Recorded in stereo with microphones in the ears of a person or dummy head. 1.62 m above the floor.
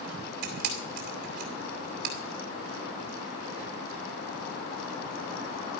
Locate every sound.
0.4 s a camera shutter: 55° right (ahead or behind), 2.5 m